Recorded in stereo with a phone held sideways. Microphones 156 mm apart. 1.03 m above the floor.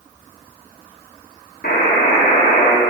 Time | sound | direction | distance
1.6 | a buzzer | 80° left | 1.5 m